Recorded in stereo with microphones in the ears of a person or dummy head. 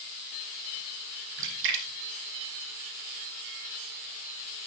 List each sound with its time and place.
1.4 s a splash: 70° right (ahead or behind), 3.5 m